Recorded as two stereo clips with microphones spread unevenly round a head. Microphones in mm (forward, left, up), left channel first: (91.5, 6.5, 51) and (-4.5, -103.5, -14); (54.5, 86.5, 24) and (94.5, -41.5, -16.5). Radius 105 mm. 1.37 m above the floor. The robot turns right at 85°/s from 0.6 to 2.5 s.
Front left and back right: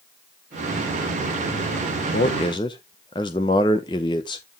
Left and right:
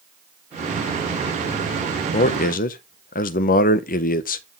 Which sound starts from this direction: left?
A man speaking, at 2.1 s.